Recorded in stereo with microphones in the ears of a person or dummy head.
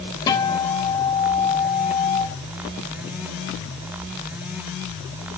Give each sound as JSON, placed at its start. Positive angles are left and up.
{"t": 0.3, "sound": "a guitar", "side_deg": 25, "distance_m": 3.5}